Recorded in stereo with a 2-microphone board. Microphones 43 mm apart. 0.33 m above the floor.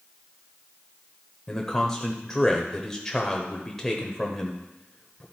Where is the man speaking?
15° left (ahead or behind), 0.9 m.